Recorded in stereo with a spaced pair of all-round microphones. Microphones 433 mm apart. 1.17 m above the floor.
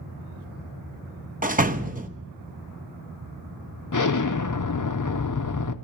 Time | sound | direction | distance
1.4 | a door slam | 20° right (ahead or behind) | 0.7 m
3.9 | an explosion | 45° left (ahead or behind) | 0.6 m